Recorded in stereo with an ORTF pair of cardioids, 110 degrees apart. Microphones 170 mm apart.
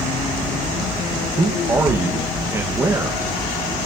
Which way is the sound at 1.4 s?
15° right.